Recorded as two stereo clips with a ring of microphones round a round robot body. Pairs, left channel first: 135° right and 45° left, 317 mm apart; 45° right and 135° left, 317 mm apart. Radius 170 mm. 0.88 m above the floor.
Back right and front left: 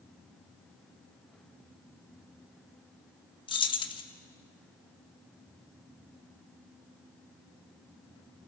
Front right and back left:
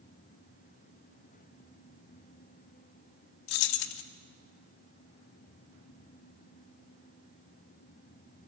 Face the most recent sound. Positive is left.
turn(degrees=-60)